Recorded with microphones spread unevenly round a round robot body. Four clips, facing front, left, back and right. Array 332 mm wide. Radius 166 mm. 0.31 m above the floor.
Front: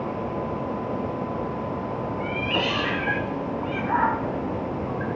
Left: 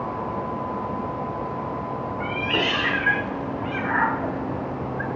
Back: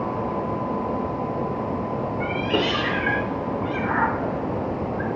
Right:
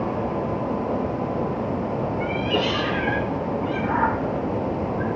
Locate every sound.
2.2 s a cat meowing: straight behind, 3 m